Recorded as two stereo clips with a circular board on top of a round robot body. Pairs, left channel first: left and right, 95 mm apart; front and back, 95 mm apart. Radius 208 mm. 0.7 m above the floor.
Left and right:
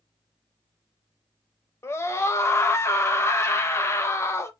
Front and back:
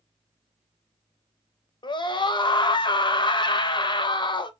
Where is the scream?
30° left, 0.7 m.